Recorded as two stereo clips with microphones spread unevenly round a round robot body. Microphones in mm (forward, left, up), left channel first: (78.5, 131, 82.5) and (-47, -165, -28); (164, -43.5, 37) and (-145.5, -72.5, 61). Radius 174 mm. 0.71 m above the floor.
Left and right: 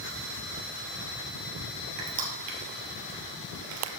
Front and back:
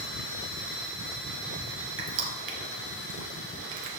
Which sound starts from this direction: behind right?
Crushing, at 2.0 s.